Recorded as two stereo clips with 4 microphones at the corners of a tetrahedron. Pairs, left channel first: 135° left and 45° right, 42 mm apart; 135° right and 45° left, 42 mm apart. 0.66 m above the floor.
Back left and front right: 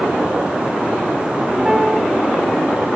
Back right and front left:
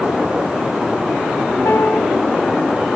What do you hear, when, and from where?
1.6 s a piano: 130° right, 2.5 m